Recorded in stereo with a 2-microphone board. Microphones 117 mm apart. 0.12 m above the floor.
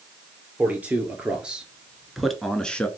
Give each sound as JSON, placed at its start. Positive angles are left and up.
{"t": 0.6, "sound": "a man speaking", "side_deg": -15, "distance_m": 2.0}